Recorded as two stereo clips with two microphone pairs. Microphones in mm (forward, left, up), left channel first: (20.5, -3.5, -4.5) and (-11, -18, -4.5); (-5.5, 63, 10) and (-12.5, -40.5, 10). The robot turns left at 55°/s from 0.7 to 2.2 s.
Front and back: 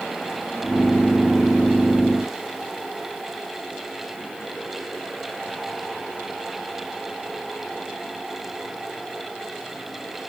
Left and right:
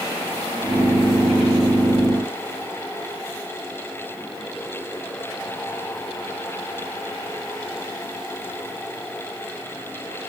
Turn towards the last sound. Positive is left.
No sound to turn to.